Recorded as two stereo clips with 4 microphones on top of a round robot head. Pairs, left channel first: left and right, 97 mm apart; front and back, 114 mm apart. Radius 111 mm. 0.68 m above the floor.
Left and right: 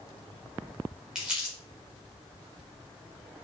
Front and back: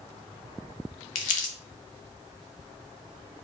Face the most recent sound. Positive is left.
turn(degrees=-5)